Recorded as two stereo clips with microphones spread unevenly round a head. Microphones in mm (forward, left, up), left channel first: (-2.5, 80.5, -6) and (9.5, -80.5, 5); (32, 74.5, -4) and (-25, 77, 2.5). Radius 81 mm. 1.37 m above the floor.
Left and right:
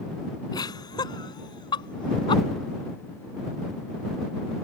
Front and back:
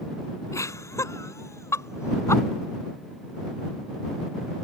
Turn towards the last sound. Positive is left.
turn(degrees=30)